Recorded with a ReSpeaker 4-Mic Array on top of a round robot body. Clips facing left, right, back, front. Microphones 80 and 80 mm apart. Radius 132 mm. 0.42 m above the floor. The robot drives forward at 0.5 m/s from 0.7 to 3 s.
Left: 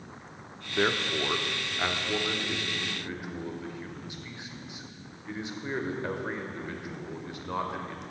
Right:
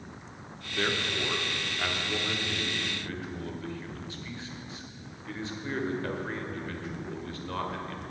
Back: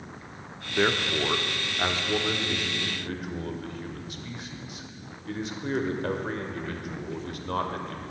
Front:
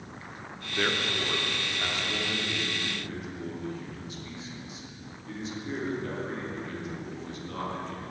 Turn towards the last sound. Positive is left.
turn(degrees=160)